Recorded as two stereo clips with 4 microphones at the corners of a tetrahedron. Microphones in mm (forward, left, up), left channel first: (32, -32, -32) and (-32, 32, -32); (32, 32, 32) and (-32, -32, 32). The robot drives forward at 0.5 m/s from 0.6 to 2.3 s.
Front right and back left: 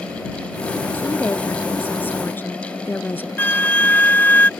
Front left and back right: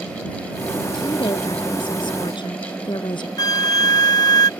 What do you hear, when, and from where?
0.9 s a woman speaking: 20° left
3.4 s a flute: 20° left